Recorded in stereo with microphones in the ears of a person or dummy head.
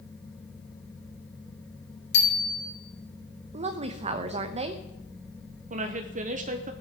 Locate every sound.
2.1 s a bicycle bell: 65° left (ahead or behind), 3 m
3.5 s a woman speaking: 35° right (ahead or behind), 0.9 m
5.7 s a woman speaking: 40° right (ahead or behind), 1.0 m